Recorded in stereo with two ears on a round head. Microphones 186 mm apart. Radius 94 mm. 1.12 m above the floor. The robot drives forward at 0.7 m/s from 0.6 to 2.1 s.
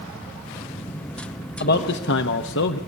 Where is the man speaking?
45° left (ahead or behind), 1.1 m; by 2.8 s 60° left (ahead or behind), 0.9 m.